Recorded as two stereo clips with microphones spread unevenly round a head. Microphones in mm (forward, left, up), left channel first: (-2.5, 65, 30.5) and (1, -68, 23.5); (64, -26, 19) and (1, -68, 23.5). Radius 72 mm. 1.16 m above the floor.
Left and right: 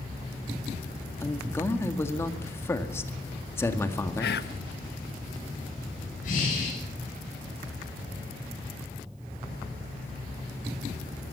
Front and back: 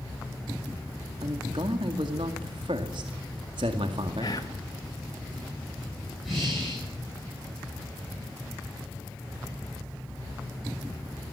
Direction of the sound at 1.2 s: 165° left.